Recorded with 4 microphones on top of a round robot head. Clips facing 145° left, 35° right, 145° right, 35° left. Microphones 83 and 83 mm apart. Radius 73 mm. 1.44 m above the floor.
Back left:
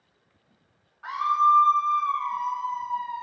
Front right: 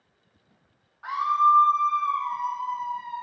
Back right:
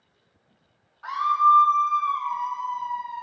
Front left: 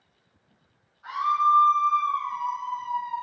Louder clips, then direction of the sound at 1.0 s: Even, back right 3 dB; 115° right.